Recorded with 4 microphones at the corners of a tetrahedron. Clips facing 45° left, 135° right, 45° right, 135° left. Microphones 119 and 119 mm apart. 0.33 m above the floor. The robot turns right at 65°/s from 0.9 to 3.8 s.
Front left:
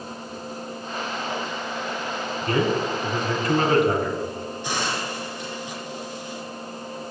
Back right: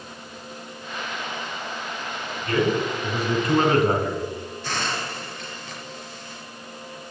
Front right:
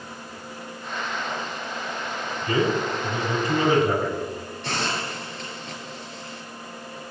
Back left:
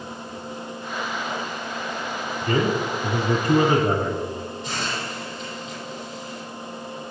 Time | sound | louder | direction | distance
2.4 | a man speaking | back right 1 dB, even | 95° left | 3.5 m
4.6 | a hiss | front left 1 dB, front right 4 dB | 30° right | 4.5 m